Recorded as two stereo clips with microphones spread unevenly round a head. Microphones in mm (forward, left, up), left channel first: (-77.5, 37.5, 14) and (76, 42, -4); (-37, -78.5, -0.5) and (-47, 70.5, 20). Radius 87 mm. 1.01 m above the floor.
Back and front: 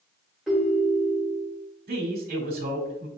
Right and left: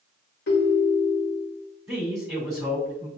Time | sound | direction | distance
0.5 | a ringtone | 90° right | 1.4 m
1.9 | a man speaking | straight ahead | 1.9 m